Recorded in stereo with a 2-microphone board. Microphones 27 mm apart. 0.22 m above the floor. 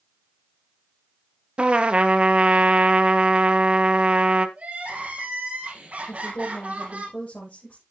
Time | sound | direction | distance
1.6 | a trumpet | 45° right (ahead or behind) | 1.1 m
4.6 | crying | 50° right (ahead or behind) | 4.5 m
6.1 | a woman speaking | 75° left (ahead or behind) | 7 m